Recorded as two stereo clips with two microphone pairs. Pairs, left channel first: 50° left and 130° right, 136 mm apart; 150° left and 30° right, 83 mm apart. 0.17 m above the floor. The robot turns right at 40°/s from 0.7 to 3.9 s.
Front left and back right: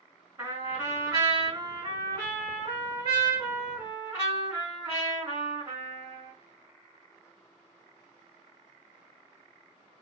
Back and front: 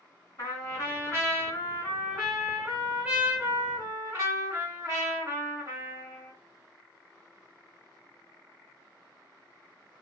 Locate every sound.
0.4 s a trumpet: 165° left, 2 m; by 6.3 s 65° right, 2 m